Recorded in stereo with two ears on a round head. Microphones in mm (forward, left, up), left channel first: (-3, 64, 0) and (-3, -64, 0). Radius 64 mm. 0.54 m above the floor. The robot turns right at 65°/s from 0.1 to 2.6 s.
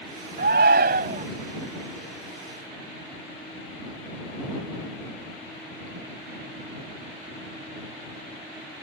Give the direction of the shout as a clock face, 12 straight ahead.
4 o'clock.